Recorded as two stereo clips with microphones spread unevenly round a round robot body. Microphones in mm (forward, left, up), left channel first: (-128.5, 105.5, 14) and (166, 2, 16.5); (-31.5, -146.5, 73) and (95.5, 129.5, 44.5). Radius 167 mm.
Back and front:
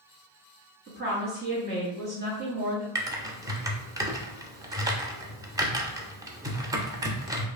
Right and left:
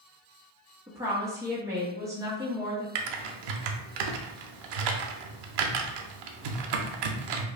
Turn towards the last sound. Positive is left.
turn(degrees=60)